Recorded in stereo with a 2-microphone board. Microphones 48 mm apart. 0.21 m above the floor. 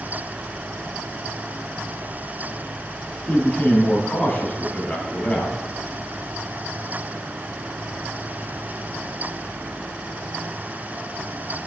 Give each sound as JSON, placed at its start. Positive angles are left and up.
{"t": 3.3, "sound": "a man speaking", "side_deg": 40, "distance_m": 1.3}